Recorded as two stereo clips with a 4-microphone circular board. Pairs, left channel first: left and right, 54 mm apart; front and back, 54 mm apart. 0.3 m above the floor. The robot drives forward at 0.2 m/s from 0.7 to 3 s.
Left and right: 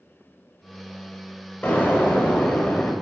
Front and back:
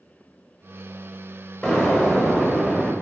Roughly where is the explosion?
Left.